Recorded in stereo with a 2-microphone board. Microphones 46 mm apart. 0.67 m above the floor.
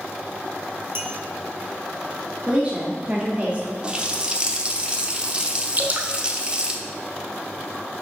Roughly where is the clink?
Right.